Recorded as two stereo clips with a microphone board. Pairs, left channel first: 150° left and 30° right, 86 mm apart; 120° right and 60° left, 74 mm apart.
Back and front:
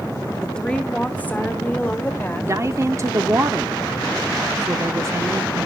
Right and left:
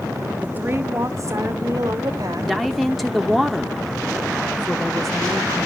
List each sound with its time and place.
0.4 s a woman speaking: 80° left, 0.7 m; by 2.5 s 85° left, 1.7 m
2.4 s a woman speaking: 30° right, 0.8 m